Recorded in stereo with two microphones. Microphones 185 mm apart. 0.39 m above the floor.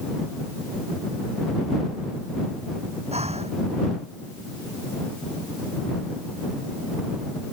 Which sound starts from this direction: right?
Breathing, at 3.1 s.